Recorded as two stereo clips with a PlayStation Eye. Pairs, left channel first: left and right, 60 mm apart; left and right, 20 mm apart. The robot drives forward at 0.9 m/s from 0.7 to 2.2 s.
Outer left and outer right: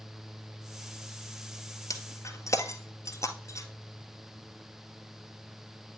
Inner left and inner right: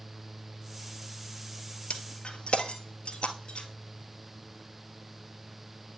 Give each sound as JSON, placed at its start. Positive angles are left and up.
{"t": 1.9, "sound": "breaking glass", "side_deg": 70, "distance_m": 1.4}